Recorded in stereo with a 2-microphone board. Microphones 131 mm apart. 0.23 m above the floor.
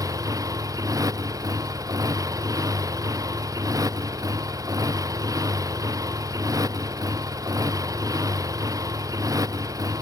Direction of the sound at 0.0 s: 25° right (ahead or behind).